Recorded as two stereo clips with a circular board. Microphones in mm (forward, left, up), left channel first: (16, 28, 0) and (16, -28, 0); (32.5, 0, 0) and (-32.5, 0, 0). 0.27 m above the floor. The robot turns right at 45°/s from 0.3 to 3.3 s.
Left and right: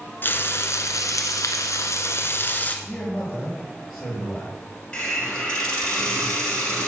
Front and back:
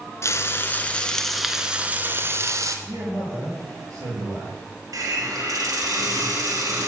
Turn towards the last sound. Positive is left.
turn(degrees=165)